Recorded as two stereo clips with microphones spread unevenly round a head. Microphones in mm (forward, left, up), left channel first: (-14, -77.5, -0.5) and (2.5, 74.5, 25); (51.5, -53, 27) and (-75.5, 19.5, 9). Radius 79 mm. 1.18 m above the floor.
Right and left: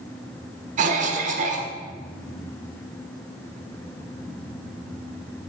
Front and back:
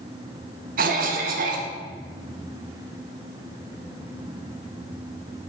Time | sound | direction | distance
0.8 | a cough | 125° left | 0.9 m